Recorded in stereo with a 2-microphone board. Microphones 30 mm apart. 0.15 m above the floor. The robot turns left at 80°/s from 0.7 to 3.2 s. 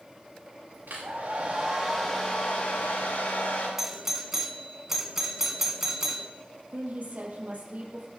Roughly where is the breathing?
I don't hear breathing.